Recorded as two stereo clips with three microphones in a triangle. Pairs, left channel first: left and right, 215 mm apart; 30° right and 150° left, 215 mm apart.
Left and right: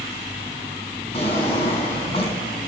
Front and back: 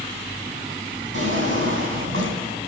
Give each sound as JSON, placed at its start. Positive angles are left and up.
{"t": 1.1, "sound": "a drawer", "azimuth_deg": 150, "distance_m": 3.0}